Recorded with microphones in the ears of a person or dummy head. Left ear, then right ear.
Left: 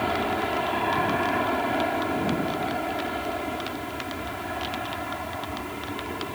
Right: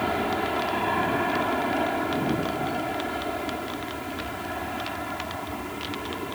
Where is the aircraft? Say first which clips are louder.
Even; centre (ahead or behind).